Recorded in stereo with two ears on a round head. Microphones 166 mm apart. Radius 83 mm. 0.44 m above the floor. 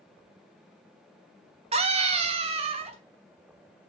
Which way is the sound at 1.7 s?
35° right (ahead or behind).